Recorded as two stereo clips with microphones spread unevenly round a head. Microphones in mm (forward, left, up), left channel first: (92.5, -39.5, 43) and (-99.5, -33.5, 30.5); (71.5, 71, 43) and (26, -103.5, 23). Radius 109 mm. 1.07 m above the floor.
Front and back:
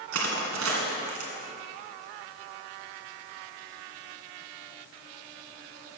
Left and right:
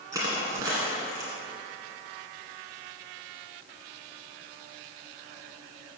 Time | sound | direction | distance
0.1 | crushing | 175° left | 1.9 m